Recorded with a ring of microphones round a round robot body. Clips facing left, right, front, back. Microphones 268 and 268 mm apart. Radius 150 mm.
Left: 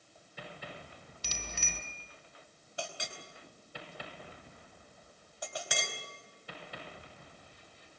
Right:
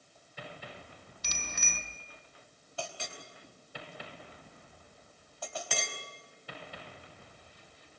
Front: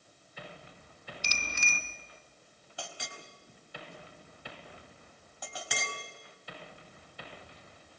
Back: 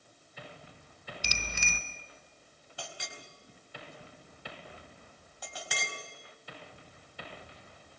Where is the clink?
15° left, 4.5 m.